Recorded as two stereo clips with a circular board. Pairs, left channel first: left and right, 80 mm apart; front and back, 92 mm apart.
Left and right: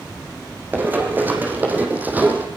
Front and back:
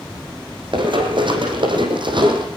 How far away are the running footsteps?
About 5 m.